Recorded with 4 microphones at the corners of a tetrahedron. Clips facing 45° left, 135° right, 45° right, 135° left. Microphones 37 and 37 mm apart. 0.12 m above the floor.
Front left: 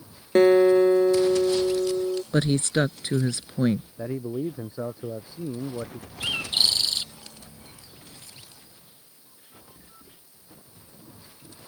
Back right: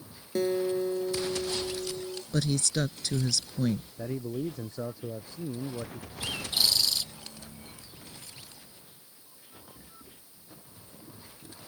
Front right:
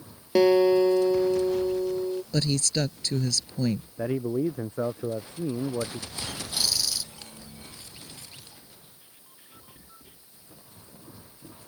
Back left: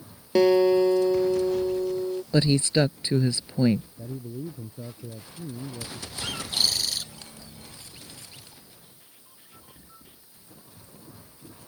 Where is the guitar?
45° left.